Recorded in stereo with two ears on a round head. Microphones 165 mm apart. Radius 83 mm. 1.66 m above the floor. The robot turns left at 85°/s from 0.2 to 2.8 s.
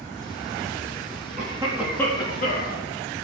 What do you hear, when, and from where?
1.4 s a cough: 135° right, 3.5 m; by 2.8 s 100° left, 3.5 m